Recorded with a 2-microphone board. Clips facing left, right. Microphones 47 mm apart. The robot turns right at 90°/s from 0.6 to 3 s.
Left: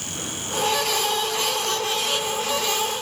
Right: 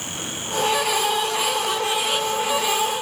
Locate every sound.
Only background noise.